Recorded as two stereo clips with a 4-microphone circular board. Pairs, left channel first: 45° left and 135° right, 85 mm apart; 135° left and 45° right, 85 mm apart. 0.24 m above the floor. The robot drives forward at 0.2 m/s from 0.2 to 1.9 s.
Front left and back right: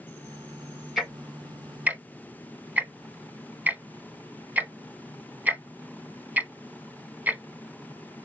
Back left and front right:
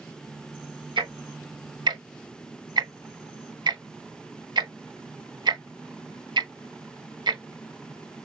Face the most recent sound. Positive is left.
turn(degrees=-65)